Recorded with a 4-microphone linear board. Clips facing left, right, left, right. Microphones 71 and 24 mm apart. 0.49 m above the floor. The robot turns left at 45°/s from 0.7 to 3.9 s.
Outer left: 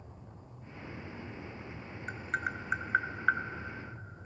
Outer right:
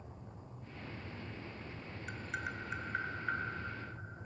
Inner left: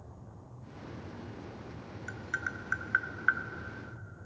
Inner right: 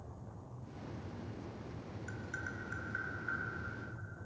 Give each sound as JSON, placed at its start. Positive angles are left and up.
{"t": 2.1, "sound": "tapping", "side_deg": 35, "distance_m": 0.5}